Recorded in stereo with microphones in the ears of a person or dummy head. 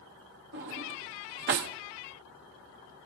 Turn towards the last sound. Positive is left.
turn(degrees=-45)  # may be behind; listen again after turning